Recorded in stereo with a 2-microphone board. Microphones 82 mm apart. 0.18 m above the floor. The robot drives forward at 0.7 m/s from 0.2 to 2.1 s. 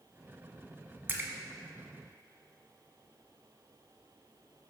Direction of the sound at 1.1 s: 30° right (ahead or behind).